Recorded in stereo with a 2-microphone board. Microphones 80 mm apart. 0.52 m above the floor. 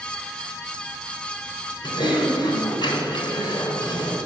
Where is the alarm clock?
No alarm clock in this recording.